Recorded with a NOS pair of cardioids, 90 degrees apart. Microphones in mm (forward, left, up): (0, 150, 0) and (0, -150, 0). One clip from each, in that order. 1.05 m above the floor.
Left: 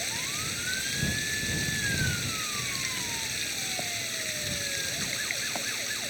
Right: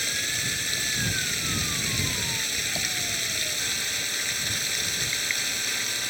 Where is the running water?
35° right.